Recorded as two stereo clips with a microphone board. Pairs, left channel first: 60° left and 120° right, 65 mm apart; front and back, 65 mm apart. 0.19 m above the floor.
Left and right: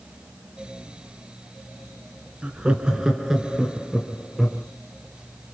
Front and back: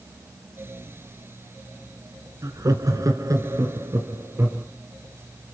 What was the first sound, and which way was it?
Laughter, 170° left.